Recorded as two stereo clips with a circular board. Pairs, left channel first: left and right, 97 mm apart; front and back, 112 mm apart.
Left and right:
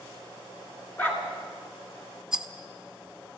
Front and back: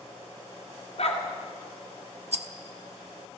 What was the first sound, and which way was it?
A dog barking, 15° left.